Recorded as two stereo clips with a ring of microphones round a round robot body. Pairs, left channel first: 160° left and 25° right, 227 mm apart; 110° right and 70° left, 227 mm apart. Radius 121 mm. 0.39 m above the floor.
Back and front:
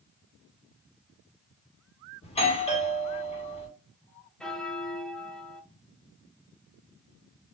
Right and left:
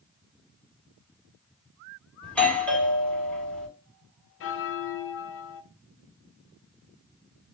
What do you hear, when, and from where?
2.2 s a doorbell: 170° left, 1.3 m
4.4 s a bell: 115° right, 0.6 m